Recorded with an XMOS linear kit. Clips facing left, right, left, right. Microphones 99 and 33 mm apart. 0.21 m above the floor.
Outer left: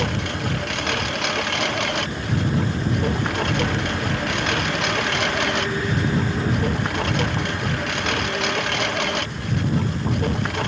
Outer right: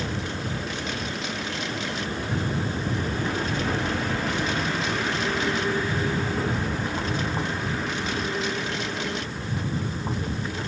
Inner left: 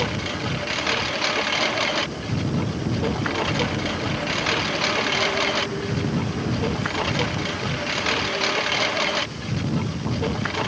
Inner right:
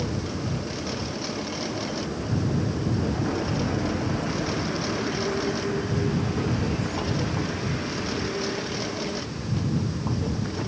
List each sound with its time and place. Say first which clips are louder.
0.0 s a lawn mower: outer left 5 dB, inner left 4 dB; 80° left